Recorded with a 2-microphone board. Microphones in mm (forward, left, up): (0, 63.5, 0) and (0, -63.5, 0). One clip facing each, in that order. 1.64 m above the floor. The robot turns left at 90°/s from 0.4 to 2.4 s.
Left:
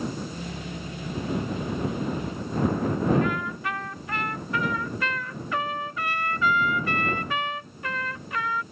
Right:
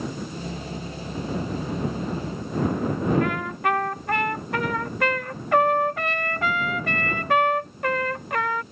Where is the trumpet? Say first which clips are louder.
Right 3 dB; 65° right (ahead or behind).